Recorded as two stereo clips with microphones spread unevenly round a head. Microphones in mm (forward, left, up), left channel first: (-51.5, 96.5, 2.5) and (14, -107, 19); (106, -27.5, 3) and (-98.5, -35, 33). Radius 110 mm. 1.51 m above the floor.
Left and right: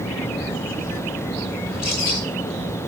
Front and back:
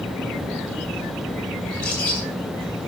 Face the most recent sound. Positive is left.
turn(degrees=90)